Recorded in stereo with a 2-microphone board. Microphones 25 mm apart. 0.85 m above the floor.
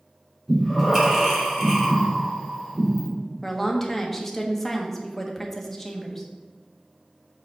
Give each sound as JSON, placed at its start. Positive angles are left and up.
{"t": 0.5, "sound": "breathing", "side_deg": -15, "distance_m": 2.5}
{"t": 3.4, "sound": "a woman speaking", "side_deg": 10, "distance_m": 1.3}